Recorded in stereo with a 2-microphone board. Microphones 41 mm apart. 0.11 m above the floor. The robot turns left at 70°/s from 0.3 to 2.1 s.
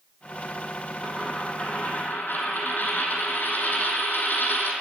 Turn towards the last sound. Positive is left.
turn(degrees=120)